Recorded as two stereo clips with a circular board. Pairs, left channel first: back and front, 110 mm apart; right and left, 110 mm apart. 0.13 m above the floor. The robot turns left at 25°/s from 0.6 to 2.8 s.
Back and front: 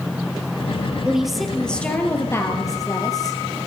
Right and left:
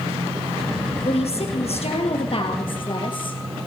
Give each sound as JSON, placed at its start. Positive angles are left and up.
{"t": 1.1, "sound": "a woman speaking", "azimuth_deg": -80, "distance_m": 2.5}